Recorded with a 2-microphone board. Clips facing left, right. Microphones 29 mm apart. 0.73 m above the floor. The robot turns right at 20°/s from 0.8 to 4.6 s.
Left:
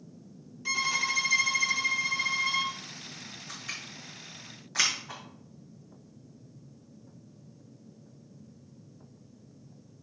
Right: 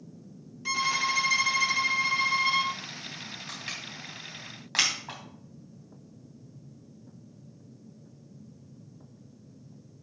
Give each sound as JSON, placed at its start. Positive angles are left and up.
{"t": 0.7, "sound": "a violin", "azimuth_deg": -170, "distance_m": 0.7}
{"t": 3.5, "sound": "crushing", "side_deg": -85, "distance_m": 3.5}